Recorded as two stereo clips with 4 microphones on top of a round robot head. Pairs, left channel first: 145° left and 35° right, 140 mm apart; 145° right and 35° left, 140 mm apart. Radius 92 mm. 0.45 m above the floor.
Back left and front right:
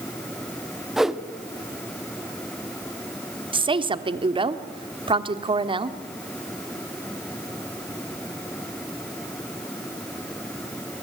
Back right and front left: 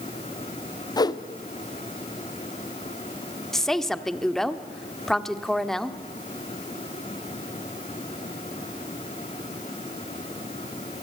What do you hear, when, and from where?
1.0 s a whoosh: 125° right, 1.1 m
3.5 s a woman speaking: 55° right, 1.3 m